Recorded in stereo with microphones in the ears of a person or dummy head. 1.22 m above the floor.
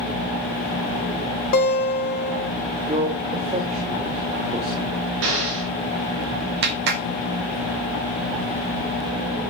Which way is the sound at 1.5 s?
50° left (ahead or behind).